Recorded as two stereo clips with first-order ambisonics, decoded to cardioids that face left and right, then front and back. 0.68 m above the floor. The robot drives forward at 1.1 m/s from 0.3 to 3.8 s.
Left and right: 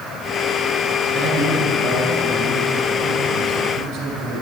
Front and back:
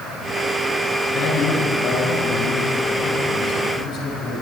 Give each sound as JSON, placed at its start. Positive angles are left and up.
{"t": 1.1, "sound": "a man speaking", "azimuth_deg": -35, "distance_m": 8.0}